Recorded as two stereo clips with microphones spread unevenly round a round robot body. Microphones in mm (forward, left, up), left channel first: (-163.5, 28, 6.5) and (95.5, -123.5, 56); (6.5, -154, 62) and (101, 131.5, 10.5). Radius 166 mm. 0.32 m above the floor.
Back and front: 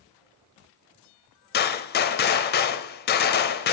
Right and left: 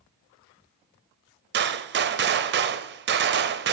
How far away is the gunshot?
About 0.5 m.